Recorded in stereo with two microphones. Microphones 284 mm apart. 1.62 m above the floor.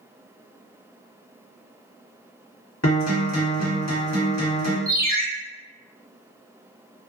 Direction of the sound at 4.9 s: 35° right (ahead or behind).